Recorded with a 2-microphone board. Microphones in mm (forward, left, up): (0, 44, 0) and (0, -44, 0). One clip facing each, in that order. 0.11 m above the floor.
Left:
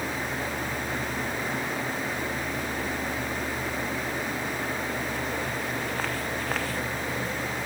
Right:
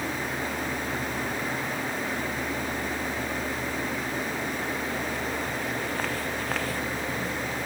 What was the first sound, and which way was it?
Only background noise.